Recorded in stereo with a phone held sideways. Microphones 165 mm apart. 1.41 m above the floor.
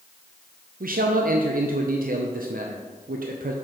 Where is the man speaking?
70° right (ahead or behind), 0.5 m.